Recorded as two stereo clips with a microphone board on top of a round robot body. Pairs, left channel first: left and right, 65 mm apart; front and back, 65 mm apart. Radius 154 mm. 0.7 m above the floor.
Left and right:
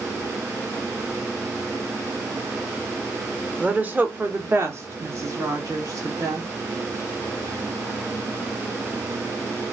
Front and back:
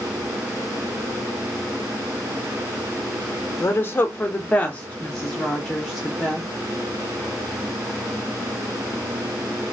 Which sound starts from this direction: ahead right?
A woman speaking, at 3.6 s.